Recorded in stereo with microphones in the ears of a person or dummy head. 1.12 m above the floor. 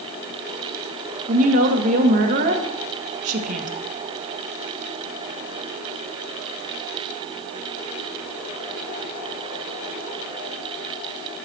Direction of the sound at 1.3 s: 45° right (ahead or behind).